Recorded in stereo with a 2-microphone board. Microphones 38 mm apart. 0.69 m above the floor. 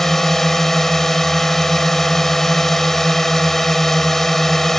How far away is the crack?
No crack in this recording.